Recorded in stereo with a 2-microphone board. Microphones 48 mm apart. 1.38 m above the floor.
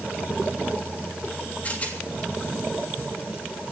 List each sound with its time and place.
1.6 s a rattle: 30° left (ahead or behind), 3 m